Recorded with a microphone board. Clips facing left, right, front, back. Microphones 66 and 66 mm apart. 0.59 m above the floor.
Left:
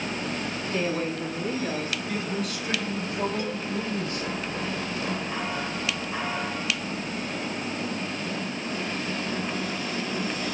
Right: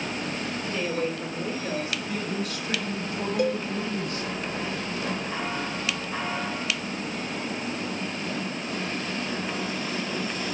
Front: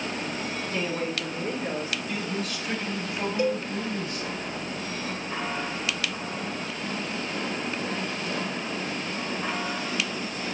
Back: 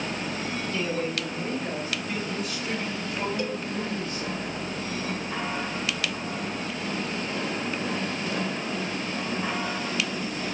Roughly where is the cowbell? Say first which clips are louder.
Right 6 dB, front 5 dB; ahead right.